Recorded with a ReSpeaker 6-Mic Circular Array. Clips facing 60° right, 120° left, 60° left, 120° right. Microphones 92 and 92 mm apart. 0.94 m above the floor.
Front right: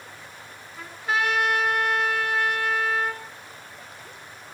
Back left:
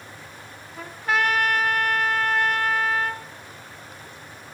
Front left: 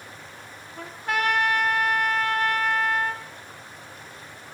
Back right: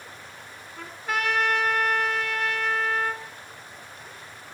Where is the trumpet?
85° left, 1.8 m.